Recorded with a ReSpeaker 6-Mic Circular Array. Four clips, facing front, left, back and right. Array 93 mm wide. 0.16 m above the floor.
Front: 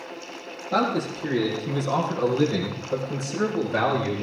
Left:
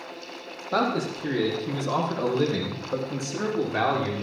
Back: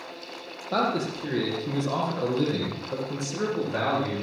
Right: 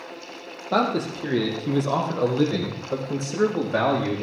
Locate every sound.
0.7 s a man speaking: 100° right, 5 m; by 4.2 s 85° right, 6.5 m